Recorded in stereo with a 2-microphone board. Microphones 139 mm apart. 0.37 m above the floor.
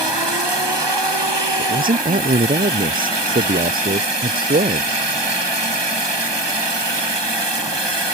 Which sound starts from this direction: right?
A man speaking, at 1.6 s.